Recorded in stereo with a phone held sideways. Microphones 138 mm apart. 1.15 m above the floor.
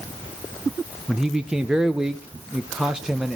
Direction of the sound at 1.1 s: 5° right (ahead or behind).